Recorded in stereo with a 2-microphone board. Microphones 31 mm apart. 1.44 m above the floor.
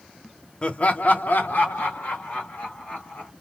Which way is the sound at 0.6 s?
30° left (ahead or behind).